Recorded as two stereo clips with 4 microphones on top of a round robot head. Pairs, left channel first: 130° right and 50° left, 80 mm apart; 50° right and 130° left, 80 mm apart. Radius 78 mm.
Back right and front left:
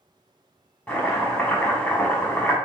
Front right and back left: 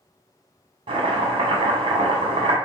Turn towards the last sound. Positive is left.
turn(degrees=150)